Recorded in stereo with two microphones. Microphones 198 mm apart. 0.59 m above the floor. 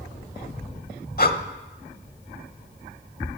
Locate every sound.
1.2 s breathing: 50° left (ahead or behind), 1.0 m